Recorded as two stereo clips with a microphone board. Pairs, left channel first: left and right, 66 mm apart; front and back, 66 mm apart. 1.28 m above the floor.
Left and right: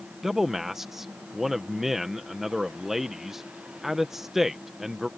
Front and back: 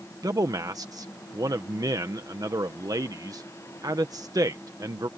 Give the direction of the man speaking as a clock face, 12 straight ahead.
6 o'clock.